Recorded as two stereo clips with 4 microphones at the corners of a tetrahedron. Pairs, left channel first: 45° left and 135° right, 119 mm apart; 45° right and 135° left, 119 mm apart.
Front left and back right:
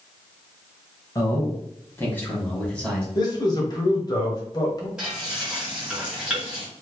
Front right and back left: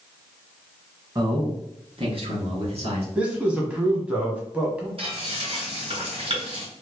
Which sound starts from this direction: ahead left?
A man speaking, at 3.1 s.